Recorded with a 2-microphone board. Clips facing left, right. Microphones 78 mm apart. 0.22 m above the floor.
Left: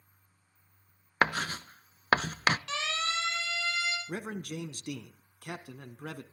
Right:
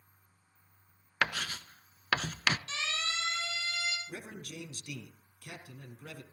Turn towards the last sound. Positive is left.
turn(degrees=55)  # may be behind; listen again after turning